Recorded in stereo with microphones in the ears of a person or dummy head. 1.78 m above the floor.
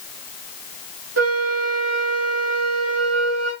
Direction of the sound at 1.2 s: 80° right.